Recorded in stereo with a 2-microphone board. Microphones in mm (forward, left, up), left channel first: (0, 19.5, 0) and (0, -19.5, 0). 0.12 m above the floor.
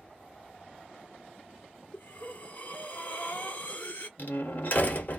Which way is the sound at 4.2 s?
45° left (ahead or behind).